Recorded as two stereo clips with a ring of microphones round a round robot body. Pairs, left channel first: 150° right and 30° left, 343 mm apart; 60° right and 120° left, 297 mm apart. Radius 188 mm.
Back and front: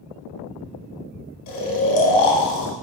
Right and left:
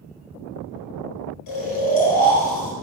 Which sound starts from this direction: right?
Snoring, at 1.5 s.